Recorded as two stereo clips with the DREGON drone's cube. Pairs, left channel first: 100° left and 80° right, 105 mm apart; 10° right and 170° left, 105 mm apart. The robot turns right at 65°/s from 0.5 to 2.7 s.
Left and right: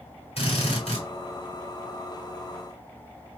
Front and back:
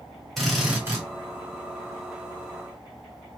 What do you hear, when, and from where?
0.4 s a drill: 75° left, 1.8 m; by 1.1 s 115° left, 1.8 m